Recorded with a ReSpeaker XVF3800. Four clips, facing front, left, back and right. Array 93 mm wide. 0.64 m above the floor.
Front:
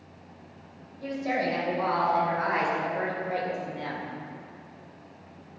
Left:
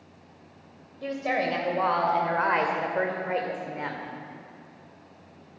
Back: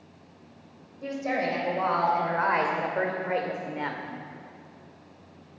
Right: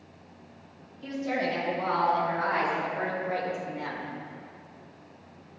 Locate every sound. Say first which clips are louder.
1.0 s a woman speaking: left 2 dB, even; 105° left, 3 m; by 4.0 s 150° left, 2 m